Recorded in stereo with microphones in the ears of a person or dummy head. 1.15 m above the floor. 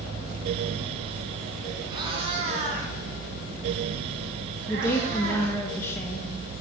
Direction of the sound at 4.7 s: 15° left (ahead or behind).